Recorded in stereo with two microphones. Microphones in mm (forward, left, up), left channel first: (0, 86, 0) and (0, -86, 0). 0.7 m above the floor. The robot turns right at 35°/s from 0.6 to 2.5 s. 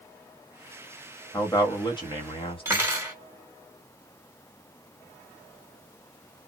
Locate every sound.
1.3 s a man speaking: 35° left, 1.2 m; by 2.9 s 75° left, 1.2 m
2.6 s cutlery clinking: 15° right (ahead or behind), 1.2 m